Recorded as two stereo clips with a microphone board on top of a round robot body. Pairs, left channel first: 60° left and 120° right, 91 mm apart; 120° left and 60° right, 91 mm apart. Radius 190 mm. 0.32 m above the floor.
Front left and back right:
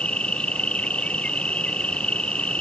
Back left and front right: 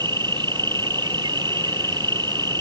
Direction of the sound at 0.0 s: 20° right.